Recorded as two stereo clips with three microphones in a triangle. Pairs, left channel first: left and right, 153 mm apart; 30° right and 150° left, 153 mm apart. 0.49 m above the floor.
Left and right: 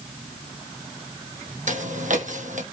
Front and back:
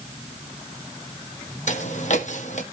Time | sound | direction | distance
1.7 | footsteps | 65° right | 1.2 m